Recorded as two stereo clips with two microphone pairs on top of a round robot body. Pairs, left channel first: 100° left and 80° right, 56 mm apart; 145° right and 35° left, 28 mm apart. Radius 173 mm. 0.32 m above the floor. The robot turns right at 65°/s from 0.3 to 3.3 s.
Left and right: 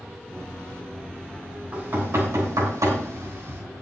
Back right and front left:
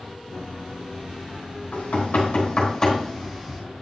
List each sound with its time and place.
1.7 s knocking: 140° right, 4 m; by 3.6 s 40° right, 4 m